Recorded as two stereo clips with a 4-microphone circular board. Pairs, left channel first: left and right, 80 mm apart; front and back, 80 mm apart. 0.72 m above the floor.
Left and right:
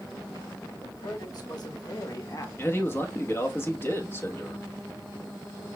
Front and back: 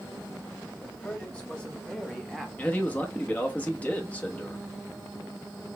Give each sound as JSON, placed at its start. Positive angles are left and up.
{"t": 0.8, "sound": "a man speaking", "azimuth_deg": 70, "distance_m": 1.8}
{"t": 2.6, "sound": "a man speaking", "azimuth_deg": 60, "distance_m": 1.0}